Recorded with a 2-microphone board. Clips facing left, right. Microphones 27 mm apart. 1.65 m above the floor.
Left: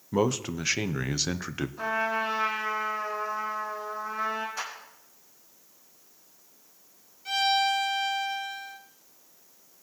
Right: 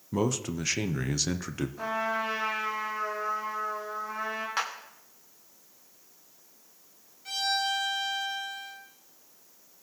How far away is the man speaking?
About 0.5 m.